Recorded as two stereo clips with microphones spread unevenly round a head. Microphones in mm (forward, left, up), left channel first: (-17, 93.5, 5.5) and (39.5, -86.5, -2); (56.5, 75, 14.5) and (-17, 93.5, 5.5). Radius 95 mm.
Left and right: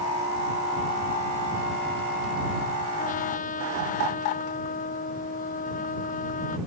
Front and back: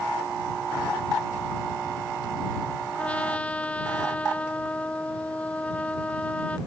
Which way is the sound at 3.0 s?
60° left.